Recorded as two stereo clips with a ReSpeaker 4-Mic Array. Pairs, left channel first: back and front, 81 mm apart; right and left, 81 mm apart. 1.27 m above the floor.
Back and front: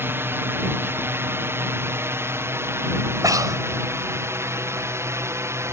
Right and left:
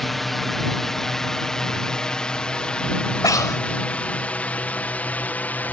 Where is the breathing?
45° right.